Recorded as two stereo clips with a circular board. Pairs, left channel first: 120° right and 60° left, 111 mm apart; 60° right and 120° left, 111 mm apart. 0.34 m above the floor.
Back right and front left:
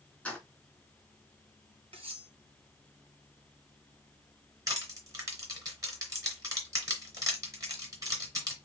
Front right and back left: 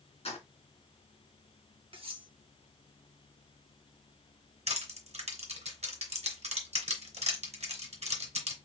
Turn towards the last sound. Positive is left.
turn(degrees=120)